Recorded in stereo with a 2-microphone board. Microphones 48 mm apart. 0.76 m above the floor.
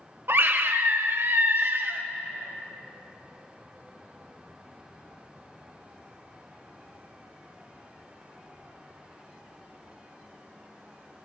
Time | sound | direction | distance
0.3 | a scream | 55° right (ahead or behind) | 1.1 m